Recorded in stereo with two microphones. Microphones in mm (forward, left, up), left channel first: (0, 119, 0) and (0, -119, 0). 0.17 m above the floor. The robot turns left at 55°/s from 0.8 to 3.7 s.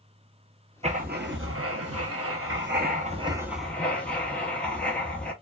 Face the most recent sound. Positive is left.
turn(degrees=175)